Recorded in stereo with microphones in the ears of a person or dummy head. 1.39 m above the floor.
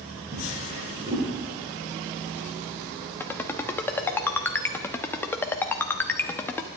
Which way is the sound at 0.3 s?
30° right (ahead or behind).